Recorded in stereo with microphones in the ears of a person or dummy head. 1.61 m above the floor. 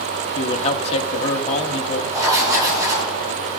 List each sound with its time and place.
0.3 s a man speaking: 30° left (ahead or behind), 1.0 m
2.1 s writing: 20° right (ahead or behind), 4.5 m